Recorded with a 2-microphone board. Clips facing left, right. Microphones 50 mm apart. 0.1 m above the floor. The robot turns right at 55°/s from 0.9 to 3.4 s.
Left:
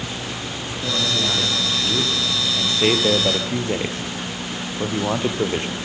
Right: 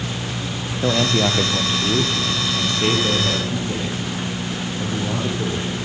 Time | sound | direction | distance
0.8 | a man speaking | 75° right | 3 m